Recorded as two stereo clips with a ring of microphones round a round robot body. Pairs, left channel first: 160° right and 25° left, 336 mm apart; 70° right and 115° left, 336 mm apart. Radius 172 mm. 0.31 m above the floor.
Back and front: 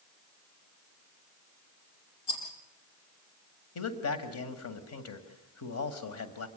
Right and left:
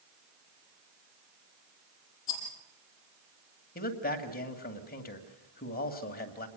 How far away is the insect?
I don't hear an insect.